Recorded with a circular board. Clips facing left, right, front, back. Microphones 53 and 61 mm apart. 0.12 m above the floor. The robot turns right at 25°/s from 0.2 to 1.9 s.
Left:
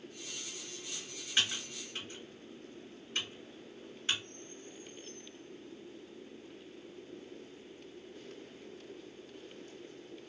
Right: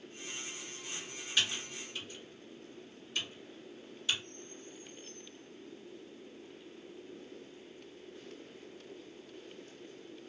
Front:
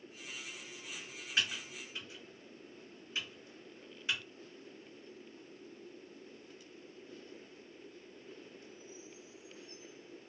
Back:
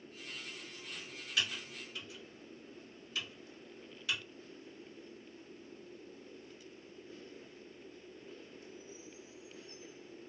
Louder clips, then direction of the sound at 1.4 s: Even, front 1 dB; 45° left.